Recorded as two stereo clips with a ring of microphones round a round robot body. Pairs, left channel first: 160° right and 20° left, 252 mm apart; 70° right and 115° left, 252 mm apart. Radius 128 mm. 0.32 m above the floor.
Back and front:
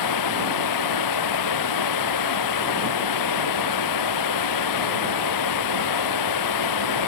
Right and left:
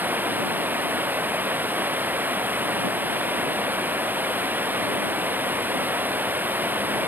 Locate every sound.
0.0 s running water: 165° right